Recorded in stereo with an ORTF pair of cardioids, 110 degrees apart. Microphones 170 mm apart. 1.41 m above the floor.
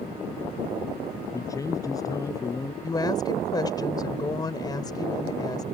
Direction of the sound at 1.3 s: 20° left.